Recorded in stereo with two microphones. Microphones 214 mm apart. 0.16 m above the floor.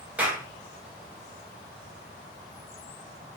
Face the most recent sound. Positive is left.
turn(degrees=-5)  # may be behind; listen again after turning